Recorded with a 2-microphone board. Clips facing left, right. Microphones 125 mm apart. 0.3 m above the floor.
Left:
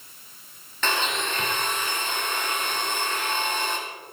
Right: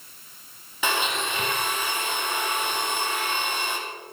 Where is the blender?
10° right (ahead or behind), 2.5 m.